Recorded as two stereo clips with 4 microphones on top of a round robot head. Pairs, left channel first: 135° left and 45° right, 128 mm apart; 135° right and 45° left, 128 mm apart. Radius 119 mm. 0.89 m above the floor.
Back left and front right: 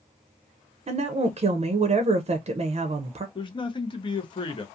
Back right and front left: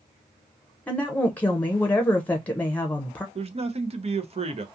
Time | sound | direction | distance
0.9 | a woman speaking | 60° right | 0.6 m
3.4 | a man speaking | 85° left | 0.7 m